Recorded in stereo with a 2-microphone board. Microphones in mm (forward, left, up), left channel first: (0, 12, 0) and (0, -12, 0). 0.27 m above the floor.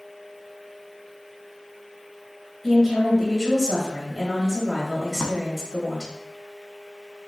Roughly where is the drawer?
Right.